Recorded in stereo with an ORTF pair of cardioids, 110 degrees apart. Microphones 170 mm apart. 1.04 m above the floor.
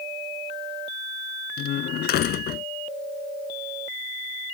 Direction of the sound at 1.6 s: 70° left.